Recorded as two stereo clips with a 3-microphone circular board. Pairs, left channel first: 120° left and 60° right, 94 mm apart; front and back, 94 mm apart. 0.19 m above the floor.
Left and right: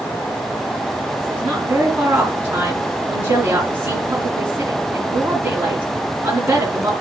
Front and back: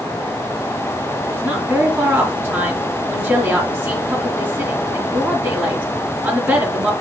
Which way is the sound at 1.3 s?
120° right.